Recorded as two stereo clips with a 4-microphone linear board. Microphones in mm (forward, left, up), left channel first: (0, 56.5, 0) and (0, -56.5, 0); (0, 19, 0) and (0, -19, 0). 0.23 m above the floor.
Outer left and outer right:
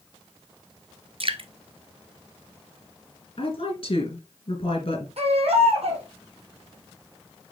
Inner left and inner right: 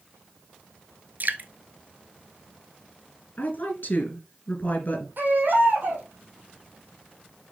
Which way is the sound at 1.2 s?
55° right (ahead or behind).